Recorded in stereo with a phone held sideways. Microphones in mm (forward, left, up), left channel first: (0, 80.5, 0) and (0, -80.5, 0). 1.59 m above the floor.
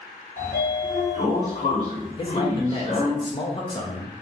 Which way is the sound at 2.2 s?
30° left (ahead or behind).